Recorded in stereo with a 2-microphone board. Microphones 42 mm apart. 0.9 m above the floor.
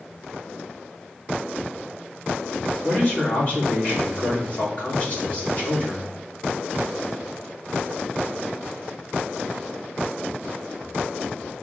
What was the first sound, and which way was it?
A man speaking, 35° left (ahead or behind).